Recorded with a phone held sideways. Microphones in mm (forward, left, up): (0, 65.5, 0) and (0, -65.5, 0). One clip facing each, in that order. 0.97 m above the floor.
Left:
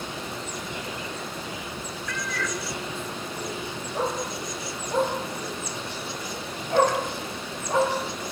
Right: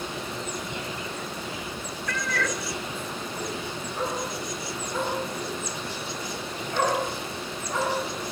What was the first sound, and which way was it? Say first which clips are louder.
A cat meowing: right 3 dB; 55° right (ahead or behind).